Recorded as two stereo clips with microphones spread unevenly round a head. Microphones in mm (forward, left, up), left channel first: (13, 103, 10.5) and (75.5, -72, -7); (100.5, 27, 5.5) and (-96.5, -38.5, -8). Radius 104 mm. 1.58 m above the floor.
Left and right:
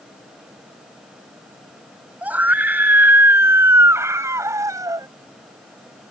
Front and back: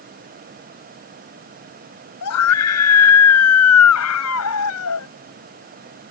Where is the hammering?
No hammering in this recording.